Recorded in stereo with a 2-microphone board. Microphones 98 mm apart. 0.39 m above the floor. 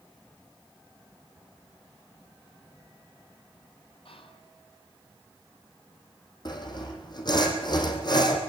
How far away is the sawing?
About 3.5 m.